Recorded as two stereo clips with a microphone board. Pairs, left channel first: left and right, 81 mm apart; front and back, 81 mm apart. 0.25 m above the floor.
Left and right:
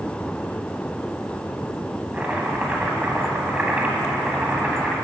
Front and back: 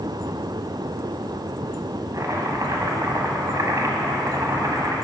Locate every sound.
2.1 s chopping: 160° right, 1.0 m